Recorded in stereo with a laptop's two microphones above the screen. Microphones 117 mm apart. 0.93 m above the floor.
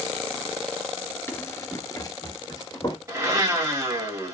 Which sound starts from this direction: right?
A blender, at 3.1 s.